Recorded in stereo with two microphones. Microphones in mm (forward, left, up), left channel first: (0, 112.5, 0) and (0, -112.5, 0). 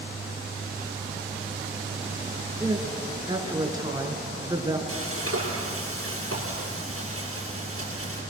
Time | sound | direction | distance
2.6 | a woman speaking | 15° right (ahead or behind) | 3.5 m
4.9 | frying | 80° right | 6.5 m